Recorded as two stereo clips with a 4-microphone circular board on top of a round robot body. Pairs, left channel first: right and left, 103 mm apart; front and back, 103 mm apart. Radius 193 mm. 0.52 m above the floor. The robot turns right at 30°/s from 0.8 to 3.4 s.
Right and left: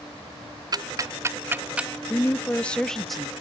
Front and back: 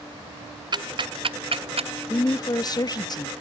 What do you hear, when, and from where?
0.7 s ticking: 140° left, 0.8 m; by 1.9 s 170° left, 0.8 m
2.1 s a woman speaking: 30° right, 0.8 m; by 3.3 s 5° left, 0.8 m